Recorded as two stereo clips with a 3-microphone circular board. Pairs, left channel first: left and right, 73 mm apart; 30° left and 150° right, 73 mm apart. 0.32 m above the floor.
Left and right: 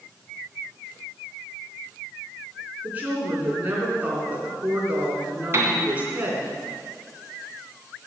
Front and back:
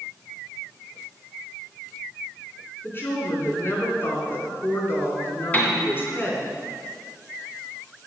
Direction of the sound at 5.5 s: 35° right.